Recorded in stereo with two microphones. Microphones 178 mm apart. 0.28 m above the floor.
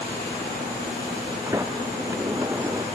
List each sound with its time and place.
1.5 s a sliding door: 15° right (ahead or behind)